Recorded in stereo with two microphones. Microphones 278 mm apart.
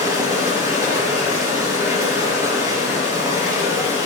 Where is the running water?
10° right (ahead or behind), 5 m.